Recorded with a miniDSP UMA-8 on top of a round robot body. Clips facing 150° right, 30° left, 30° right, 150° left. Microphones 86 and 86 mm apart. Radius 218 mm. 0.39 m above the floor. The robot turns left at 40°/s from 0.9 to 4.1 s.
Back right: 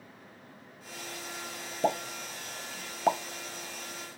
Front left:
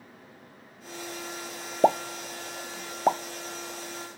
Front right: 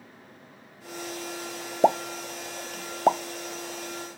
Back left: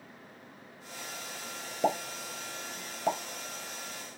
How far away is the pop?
About 0.6 m.